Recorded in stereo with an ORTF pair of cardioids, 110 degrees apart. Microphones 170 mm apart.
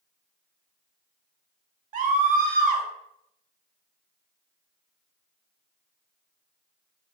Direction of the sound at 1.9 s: 50° right.